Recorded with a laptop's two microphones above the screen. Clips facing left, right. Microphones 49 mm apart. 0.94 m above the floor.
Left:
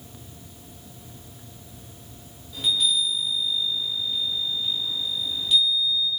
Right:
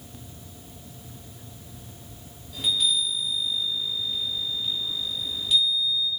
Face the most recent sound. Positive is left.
turn(degrees=-5)  # may be behind; listen again after turning